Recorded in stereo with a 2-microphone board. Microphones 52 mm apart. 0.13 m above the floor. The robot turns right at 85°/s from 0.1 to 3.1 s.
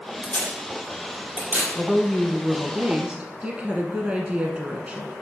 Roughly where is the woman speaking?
Centre.